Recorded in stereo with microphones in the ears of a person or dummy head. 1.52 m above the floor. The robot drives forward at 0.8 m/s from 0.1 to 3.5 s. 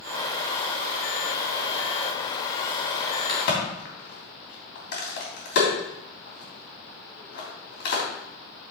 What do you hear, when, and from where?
3.3 s a crack: 55° left (ahead or behind), 3 m; by 8.0 s 50° left (ahead or behind), 3 m